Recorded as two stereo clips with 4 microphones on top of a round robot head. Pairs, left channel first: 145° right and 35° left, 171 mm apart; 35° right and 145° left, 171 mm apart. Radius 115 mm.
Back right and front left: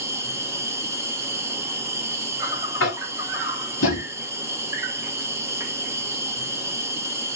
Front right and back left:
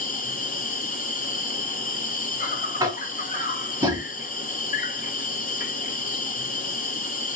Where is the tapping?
145° right, 0.7 m.